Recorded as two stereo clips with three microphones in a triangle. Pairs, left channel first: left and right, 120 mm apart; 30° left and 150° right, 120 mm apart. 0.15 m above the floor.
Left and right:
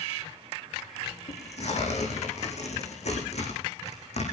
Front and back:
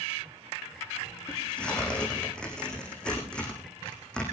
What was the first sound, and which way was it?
Tearing paper, 110° left.